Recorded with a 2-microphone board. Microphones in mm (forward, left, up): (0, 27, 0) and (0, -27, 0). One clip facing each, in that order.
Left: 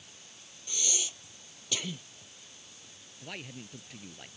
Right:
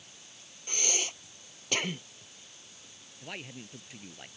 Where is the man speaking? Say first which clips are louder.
Right 1 dB; 5° right (ahead or behind).